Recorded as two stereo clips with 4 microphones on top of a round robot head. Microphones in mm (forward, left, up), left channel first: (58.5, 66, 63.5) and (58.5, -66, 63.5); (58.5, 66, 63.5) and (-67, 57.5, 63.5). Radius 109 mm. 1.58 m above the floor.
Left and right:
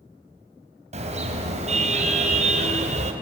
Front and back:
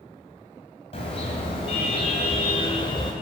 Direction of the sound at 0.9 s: 55° right.